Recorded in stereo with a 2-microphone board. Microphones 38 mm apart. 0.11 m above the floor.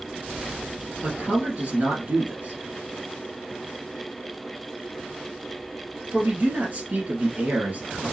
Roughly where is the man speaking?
Right.